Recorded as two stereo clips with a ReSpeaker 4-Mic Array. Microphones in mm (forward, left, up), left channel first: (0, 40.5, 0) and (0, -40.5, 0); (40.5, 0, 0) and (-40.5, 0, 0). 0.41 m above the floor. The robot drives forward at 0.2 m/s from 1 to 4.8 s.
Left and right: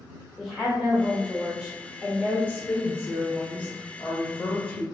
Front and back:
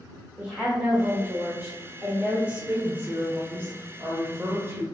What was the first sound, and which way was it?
A woman speaking, 160° right.